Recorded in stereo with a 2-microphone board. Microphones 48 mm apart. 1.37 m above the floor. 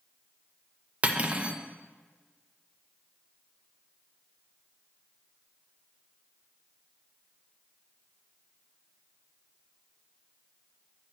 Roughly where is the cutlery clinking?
Right.